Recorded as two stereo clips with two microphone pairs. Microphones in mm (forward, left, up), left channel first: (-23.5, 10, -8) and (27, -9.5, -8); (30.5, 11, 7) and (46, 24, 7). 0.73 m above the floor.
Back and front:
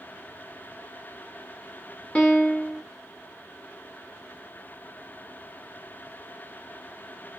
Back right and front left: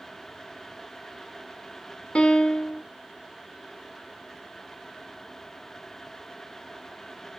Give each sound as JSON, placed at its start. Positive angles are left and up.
{"t": 2.1, "sound": "a piano", "azimuth_deg": -135, "distance_m": 0.6}